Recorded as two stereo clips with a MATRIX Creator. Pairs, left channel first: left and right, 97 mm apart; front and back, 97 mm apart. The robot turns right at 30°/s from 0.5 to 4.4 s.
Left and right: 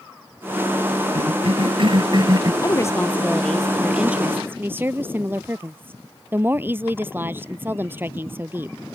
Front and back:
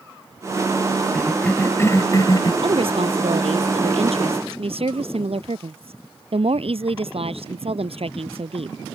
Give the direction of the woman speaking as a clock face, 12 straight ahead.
7 o'clock.